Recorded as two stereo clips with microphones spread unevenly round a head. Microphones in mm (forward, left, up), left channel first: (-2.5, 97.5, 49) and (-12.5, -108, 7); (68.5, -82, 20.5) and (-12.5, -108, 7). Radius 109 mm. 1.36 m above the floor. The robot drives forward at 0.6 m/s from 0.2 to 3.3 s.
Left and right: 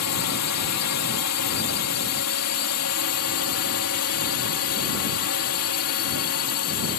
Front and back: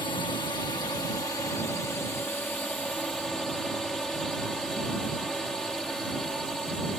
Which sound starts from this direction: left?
A drone, at 0.0 s.